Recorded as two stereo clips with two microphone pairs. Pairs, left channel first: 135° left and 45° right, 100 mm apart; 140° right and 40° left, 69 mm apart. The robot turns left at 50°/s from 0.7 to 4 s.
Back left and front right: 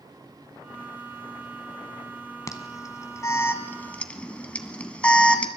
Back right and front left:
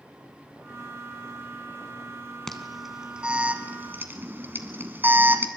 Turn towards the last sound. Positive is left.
turn(degrees=65)